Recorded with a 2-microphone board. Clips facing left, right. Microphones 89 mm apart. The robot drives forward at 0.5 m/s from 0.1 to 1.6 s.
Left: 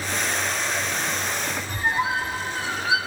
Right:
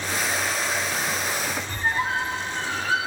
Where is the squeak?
10° left (ahead or behind), 1.8 m.